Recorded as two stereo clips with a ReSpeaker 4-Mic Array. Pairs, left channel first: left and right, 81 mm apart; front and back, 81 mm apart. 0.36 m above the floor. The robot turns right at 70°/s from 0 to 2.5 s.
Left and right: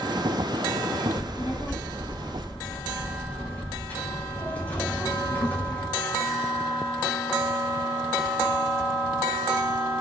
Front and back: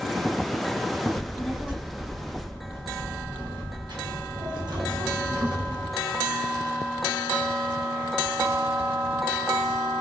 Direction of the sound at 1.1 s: 65° left.